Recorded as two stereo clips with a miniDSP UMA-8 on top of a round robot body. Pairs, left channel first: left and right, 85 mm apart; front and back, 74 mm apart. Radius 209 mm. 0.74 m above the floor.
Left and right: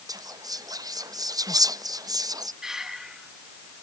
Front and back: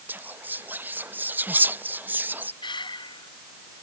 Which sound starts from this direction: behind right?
Whispering, at 0.1 s.